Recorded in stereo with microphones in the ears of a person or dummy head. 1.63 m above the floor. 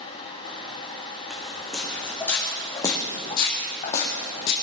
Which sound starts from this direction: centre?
Footsteps, at 1.3 s.